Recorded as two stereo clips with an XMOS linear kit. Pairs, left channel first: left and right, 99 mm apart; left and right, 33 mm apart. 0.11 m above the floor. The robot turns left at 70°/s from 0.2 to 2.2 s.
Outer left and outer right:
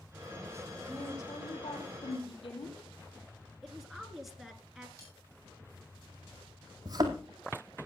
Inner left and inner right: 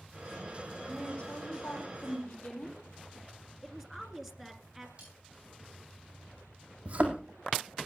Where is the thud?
40° right (ahead or behind), 2.5 m.